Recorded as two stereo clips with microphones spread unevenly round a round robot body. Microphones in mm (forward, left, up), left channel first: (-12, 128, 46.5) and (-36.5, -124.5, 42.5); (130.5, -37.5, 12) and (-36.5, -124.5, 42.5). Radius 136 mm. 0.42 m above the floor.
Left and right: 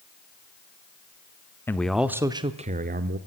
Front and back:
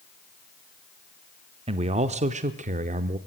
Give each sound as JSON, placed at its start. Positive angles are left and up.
{"t": 1.7, "sound": "a man speaking", "azimuth_deg": 160, "distance_m": 1.0}